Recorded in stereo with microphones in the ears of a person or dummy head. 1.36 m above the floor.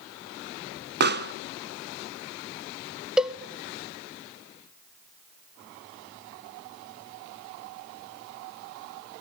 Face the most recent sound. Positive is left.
turn(degrees=-5)  # may be behind; listen again after turning